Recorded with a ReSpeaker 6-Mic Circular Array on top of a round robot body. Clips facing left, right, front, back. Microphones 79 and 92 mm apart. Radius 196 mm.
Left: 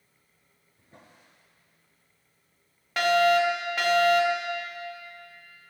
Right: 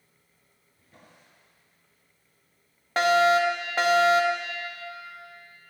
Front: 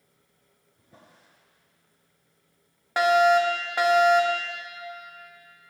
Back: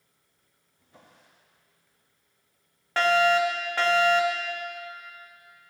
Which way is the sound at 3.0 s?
65° right.